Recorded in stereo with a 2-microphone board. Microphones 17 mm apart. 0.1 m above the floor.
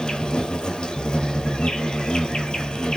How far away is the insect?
About 0.8 m.